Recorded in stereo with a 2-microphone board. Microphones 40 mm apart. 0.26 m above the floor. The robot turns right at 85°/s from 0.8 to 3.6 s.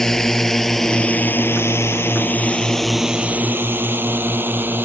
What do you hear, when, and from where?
0.0 s a drone: 10° left (ahead or behind); by 4.8 s 50° right (ahead or behind)